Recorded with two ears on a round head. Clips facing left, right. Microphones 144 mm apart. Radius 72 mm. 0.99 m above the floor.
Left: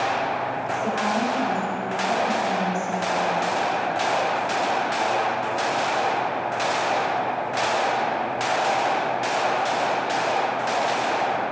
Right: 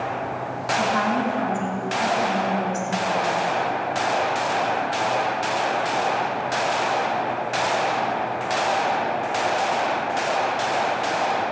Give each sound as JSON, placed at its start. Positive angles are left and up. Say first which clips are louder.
{"t": 0.7, "sound": "a woman speaking", "louder": "right 4 dB", "side_deg": -75, "distance_m": 4.5}